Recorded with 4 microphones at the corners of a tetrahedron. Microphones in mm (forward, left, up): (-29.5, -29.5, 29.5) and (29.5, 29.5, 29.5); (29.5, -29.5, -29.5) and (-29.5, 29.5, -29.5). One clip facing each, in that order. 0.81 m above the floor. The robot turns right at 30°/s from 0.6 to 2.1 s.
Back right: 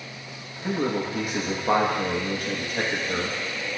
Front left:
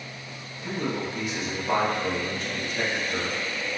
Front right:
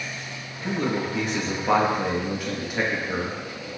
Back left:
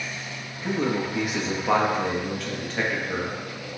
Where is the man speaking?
170° right, 0.9 m; by 3.4 s 125° right, 0.9 m.